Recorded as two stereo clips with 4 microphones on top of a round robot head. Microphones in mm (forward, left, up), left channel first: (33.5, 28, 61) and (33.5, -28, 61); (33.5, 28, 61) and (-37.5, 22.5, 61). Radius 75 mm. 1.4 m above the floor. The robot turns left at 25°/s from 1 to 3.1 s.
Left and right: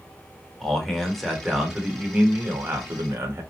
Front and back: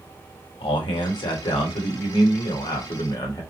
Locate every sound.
0.6 s a man speaking: 5° left, 0.9 m; by 3.4 s 45° right, 0.9 m